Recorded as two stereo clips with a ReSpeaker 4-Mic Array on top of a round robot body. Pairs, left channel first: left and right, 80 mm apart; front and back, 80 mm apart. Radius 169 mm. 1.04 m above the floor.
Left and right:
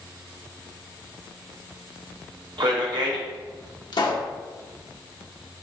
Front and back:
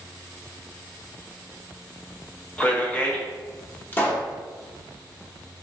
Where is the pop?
65° left, 1.0 m.